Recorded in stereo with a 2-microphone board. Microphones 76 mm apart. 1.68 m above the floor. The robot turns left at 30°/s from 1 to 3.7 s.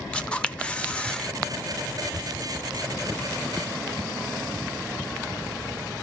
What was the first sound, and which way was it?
A camera shutter, 15° left (ahead or behind).